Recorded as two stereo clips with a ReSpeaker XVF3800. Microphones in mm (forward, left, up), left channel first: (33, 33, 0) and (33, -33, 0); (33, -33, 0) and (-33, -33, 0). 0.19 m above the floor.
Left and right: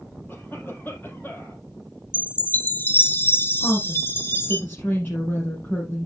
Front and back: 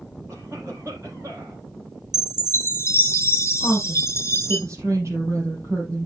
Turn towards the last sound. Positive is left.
turn(degrees=145)